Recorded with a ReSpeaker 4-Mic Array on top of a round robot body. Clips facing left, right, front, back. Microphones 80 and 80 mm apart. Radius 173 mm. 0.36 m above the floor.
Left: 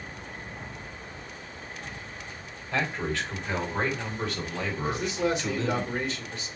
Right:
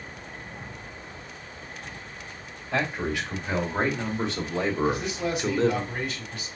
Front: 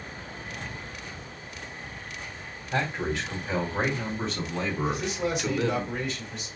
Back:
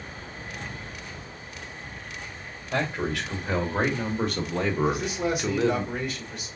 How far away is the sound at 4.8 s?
About 3 m.